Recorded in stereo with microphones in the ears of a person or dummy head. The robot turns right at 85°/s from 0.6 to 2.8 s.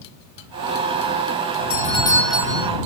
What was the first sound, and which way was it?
A doorbell, 125° left.